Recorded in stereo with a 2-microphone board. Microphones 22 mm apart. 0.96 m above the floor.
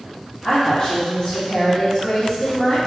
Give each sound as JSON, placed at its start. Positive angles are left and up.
{"t": 0.4, "sound": "a woman speaking", "side_deg": 45, "distance_m": 1.4}